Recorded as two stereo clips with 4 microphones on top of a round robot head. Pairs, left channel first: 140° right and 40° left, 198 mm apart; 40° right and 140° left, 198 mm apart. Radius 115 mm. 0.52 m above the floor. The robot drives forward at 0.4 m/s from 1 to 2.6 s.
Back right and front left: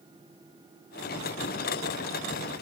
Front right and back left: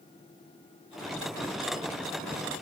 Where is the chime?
I don't hear a chime.